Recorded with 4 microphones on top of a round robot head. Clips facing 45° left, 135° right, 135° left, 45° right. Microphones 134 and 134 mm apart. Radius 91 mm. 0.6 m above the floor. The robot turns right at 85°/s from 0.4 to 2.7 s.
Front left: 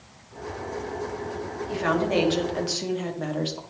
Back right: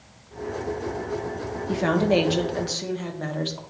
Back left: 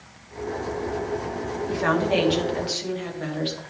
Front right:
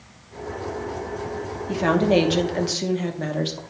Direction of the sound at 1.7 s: 115° right.